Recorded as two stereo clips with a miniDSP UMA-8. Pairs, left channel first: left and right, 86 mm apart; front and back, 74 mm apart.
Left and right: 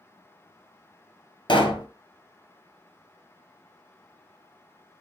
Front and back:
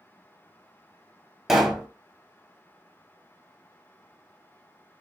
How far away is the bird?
I don't hear a bird.